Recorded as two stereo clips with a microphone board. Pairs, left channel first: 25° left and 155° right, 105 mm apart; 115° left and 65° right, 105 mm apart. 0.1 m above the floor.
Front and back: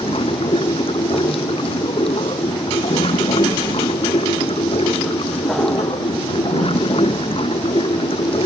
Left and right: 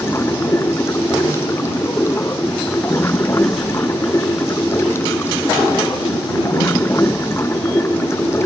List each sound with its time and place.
0.0 s running water: 50° left